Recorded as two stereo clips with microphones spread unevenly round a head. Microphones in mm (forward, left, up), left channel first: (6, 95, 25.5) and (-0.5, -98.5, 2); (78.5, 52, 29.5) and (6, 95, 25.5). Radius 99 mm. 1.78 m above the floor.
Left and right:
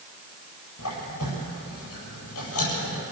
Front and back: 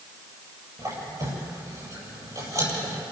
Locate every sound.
0.8 s a squeak: 100° left, 8.5 m